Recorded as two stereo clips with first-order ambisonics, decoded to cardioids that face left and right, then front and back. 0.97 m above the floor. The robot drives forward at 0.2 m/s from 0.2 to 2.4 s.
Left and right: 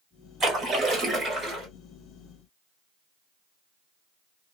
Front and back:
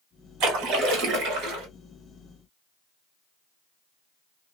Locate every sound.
0.4 s a splash: 155° right, 1.3 m; by 1.7 s 160° right, 1.5 m